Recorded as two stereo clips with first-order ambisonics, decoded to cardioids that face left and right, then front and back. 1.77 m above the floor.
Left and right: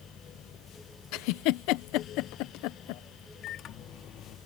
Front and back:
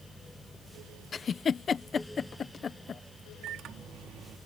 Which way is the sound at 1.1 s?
70° left.